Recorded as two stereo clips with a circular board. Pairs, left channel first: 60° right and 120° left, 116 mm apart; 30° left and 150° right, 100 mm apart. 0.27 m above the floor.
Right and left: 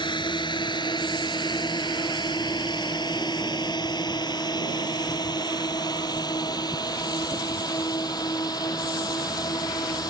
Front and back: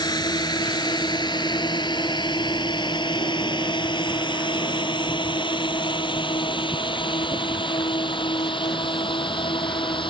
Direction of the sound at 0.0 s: 15° right.